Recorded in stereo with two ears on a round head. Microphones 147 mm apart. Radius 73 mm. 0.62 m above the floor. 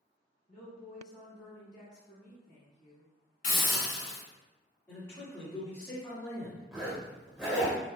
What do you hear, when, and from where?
0.5 s a woman speaking: 40° left (ahead or behind), 1.3 m
3.4 s a hiss: 45° left (ahead or behind), 1.7 m
4.9 s a man speaking: 10° left (ahead or behind), 1.3 m
6.7 s a zipper: 5° right (ahead or behind), 0.9 m